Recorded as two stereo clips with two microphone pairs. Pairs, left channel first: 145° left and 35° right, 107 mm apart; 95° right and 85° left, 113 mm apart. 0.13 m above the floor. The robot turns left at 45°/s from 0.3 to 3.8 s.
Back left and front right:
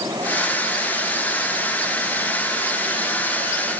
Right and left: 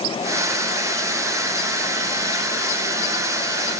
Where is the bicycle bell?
No bicycle bell in this recording.